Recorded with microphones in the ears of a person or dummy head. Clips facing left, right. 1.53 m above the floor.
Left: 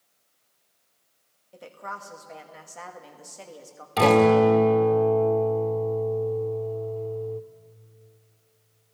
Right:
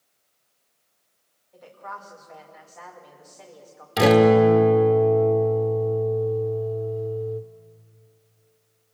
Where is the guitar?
20° right (ahead or behind), 1.4 m.